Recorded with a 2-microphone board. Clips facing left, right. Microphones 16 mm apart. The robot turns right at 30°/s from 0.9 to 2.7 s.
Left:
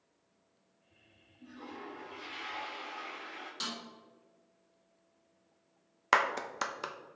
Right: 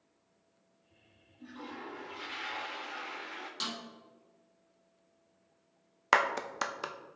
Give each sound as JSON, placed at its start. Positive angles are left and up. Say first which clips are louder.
{"t": 1.4, "sound": "a toilet flushing", "louder": "right 2 dB", "azimuth_deg": -85, "distance_m": 1.5}
{"t": 3.6, "sound": "a snare drum", "louder": "right 1 dB", "side_deg": -10, "distance_m": 2.5}
{"t": 6.1, "sound": "a clap", "louder": "right 1 dB", "side_deg": -10, "distance_m": 0.5}